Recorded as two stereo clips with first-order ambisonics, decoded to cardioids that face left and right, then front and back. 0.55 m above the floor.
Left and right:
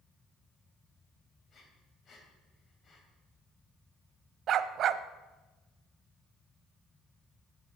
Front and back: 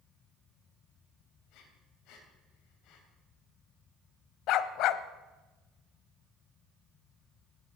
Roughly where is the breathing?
Ahead left.